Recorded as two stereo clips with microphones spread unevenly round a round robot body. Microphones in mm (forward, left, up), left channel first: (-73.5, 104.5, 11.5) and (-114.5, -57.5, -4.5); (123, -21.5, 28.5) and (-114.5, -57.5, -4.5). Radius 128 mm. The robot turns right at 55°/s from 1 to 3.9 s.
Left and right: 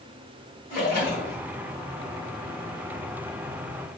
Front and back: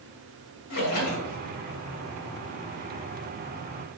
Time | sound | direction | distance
0.7 | a splash | 30° left | 1.1 m